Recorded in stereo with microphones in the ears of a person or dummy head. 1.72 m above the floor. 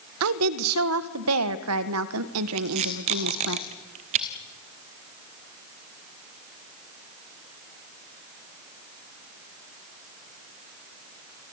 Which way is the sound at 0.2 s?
75° right (ahead or behind).